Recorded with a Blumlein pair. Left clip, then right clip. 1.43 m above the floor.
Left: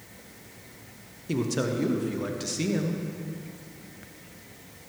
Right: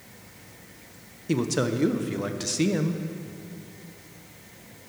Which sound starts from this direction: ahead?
A man speaking, at 1.3 s.